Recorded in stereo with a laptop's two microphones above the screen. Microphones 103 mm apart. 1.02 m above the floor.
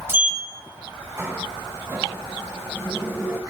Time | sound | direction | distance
0.1 | a sliding door | 25° right (ahead or behind) | 1.5 m